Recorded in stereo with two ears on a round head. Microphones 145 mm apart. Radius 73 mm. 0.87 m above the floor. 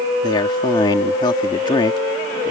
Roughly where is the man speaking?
Left.